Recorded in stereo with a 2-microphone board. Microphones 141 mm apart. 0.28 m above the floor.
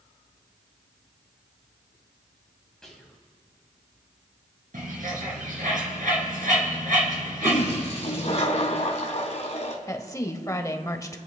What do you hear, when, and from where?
2.8 s whispering: 5° left (ahead or behind), 2 m
4.7 s a bird: 70° right (ahead or behind), 3 m
7.4 s a toilet flushing: 50° left (ahead or behind), 1.6 m
9.9 s a woman speaking: 20° left (ahead or behind), 0.9 m